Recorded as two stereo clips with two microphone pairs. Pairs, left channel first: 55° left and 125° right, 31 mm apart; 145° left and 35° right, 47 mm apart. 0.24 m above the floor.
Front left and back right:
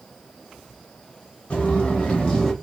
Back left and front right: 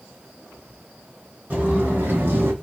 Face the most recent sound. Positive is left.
turn(degrees=-20)